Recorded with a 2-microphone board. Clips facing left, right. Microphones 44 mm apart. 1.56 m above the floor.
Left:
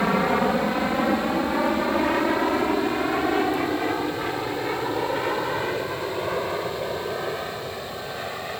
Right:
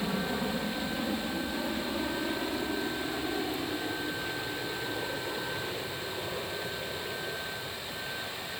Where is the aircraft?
65° left (ahead or behind); by 8.6 s 55° left (ahead or behind).